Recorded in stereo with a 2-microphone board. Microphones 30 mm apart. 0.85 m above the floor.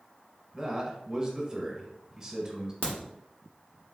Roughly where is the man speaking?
Right.